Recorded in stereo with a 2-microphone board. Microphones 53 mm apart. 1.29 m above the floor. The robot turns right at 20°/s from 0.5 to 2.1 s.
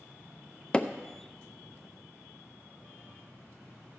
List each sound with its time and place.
0.7 s hammering: 20° left (ahead or behind), 0.5 m